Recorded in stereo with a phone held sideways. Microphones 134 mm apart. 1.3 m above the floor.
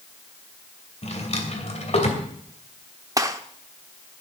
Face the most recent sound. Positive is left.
turn(degrees=-25)  # may be behind; listen again after turning